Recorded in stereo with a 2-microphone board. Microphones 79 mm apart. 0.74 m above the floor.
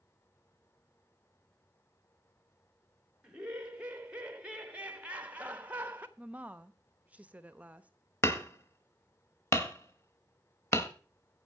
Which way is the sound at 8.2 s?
35° left (ahead or behind).